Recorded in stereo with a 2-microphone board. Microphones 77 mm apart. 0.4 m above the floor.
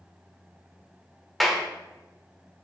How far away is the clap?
About 0.7 m.